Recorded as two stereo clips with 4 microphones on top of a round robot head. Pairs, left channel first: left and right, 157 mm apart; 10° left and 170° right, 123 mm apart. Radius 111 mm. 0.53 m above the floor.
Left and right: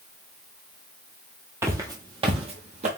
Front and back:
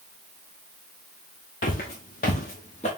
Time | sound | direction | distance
1.6 | footsteps | 15° right | 1.0 m